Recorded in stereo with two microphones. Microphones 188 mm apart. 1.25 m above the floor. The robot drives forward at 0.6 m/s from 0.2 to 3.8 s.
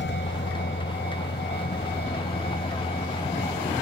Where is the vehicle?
90° left; by 3.8 s 40° left (ahead or behind).